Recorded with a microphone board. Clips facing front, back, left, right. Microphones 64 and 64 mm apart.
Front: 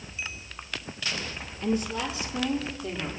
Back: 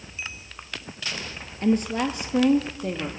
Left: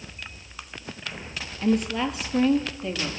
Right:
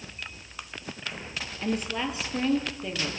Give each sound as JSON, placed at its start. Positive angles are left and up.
{"t": 1.6, "sound": "a woman speaking", "azimuth_deg": -175, "distance_m": 2.5}